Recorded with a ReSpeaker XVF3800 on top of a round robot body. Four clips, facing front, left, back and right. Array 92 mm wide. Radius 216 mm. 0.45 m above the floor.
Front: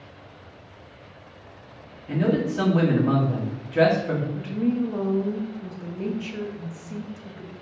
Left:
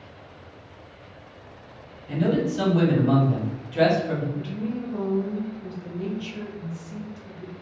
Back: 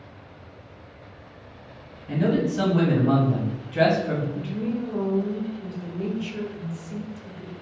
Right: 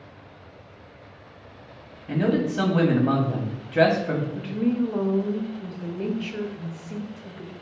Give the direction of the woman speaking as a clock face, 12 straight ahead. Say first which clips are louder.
Right 6 dB, front 3 dB; 2 o'clock.